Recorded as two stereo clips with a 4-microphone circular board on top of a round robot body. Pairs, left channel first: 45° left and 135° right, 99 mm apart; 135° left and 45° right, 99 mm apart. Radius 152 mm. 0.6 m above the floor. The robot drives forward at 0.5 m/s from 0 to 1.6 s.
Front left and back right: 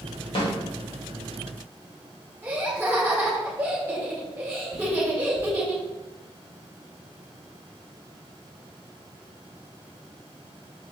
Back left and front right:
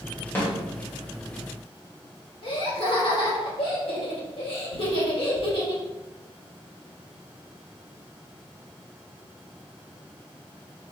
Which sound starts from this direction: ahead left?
A snare drum, at 0.3 s.